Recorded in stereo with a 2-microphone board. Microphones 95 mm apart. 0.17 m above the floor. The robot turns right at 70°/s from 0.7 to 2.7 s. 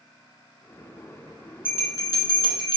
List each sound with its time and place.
1.6 s a bell: 25° left, 1.3 m; by 2.8 s 100° left, 1.3 m